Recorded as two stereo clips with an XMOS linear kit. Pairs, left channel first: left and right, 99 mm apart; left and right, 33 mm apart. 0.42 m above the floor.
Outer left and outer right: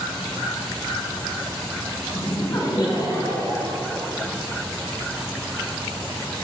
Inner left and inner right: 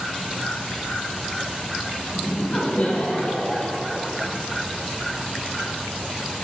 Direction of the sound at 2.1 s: 40° left (ahead or behind).